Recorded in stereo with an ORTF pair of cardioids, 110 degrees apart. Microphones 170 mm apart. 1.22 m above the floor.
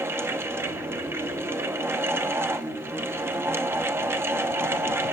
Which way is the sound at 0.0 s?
15° right.